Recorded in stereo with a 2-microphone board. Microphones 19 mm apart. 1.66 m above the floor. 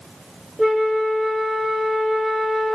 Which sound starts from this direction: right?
A flute, at 0.6 s.